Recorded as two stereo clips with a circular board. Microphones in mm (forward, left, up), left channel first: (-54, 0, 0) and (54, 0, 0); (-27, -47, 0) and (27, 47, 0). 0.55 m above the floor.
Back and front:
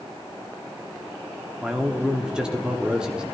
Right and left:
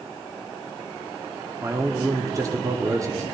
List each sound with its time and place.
1.6 s a man speaking: 80° left, 1.1 m